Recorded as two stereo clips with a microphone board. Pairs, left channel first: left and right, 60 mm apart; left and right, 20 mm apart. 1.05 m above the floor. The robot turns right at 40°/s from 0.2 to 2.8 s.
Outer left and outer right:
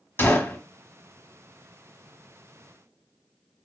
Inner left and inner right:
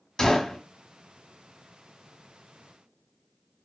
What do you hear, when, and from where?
0.2 s a gunshot: 40° left (ahead or behind), 1.3 m; by 0.6 s 30° left (ahead or behind), 1.3 m